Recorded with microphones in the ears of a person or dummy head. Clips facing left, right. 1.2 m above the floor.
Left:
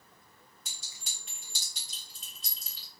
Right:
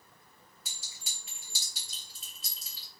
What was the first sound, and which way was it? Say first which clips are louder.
A clink: right 1 dB; 5° right (ahead or behind).